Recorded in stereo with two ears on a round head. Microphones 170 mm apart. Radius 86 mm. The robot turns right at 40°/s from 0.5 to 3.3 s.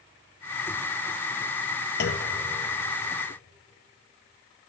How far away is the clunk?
About 1.4 m.